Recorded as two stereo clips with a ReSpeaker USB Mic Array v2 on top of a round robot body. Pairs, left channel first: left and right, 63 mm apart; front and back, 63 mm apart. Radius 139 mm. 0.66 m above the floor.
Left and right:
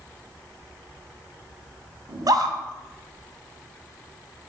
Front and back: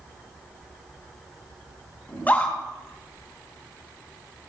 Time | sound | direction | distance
2.1 | a scream | 65° right | 3 m